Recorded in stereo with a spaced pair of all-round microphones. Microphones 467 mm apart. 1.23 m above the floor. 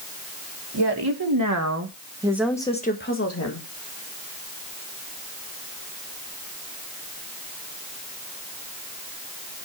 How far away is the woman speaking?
About 1.7 m.